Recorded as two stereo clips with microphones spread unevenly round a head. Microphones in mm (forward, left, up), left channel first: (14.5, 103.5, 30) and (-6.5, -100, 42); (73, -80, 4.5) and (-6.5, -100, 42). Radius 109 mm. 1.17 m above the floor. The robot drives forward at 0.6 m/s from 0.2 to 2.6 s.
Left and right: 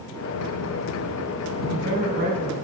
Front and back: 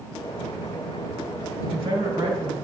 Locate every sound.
1.6 s a woman speaking: 145° right, 2.0 m; by 2.5 s 150° right, 2.5 m